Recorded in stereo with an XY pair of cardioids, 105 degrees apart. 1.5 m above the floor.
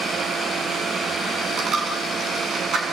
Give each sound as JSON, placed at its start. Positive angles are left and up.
{"t": 1.6, "sound": "a dropped coin", "azimuth_deg": -55, "distance_m": 6.5}